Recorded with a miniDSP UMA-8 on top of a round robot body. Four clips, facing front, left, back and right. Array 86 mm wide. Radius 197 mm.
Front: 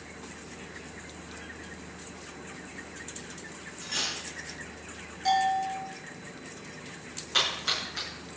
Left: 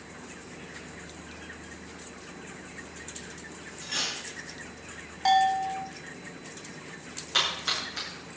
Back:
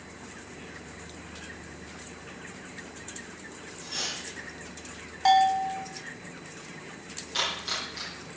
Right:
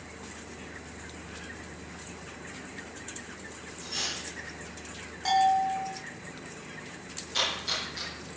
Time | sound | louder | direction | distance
3.8 | cutlery clinking | left 2 dB, front 2 dB | 70° left | 7.5 m
5.2 | a bell | left 1 dB, back 4 dB | 155° left | 0.6 m
7.3 | a splash | left 2 dB, front 1 dB | 60° left | 7.5 m